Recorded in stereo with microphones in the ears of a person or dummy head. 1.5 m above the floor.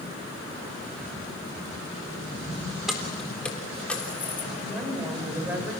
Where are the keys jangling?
Centre (ahead or behind), 4 m; by 4.5 s 10° left (ahead or behind), 3.5 m.